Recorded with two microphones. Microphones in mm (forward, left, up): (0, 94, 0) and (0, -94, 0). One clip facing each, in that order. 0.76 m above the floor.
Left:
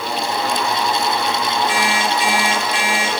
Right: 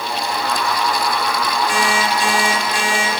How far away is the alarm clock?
About 4.5 m.